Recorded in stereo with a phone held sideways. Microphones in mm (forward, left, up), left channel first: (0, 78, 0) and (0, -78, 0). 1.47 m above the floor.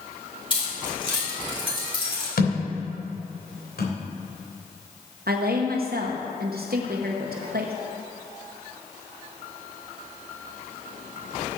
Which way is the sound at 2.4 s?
75° left (ahead or behind).